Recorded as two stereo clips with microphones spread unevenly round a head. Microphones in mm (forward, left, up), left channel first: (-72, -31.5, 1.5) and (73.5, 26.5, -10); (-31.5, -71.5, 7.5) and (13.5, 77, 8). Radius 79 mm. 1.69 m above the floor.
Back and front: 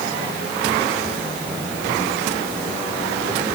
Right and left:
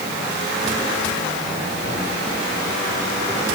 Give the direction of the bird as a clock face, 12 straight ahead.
No bird in this recording.